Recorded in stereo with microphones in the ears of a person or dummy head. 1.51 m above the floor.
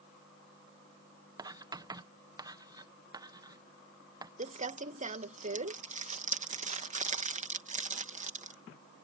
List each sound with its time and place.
1.4 s writing: 15° right (ahead or behind)
4.4 s crumpling: 35° right (ahead or behind)